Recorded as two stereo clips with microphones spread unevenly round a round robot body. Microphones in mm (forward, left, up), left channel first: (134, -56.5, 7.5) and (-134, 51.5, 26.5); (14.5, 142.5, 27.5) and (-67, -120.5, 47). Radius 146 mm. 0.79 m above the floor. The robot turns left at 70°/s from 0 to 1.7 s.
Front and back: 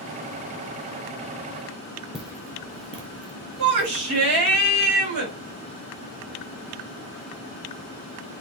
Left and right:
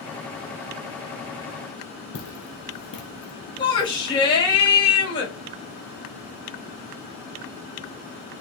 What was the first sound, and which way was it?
Footsteps, 70° left.